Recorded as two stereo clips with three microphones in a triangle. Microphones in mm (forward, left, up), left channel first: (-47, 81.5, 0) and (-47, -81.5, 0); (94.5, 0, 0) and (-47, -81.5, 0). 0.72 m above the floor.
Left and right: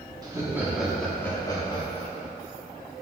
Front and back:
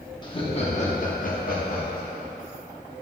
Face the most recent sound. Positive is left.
turn(degrees=45)